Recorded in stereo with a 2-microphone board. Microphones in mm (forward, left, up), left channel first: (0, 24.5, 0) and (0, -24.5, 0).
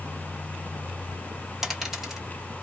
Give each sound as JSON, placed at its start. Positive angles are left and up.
{"t": 1.6, "sound": "a dropped coin", "side_deg": -10, "distance_m": 1.2}